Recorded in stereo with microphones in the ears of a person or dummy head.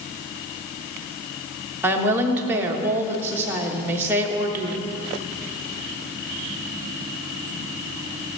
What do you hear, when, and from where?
1.8 s a woman speaking: 10° right (ahead or behind), 1.3 m